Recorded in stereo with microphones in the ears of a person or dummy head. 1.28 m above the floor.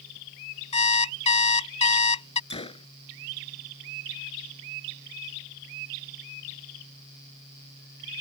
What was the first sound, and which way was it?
An alarm clock, 30° left (ahead or behind).